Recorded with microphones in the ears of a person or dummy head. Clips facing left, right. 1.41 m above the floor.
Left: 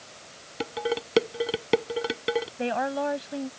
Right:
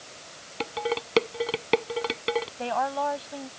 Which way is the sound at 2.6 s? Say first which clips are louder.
Left 1 dB; 25° left (ahead or behind).